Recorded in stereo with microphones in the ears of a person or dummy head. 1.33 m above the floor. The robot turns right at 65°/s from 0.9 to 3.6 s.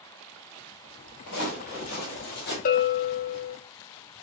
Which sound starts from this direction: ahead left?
A bell, at 2.6 s.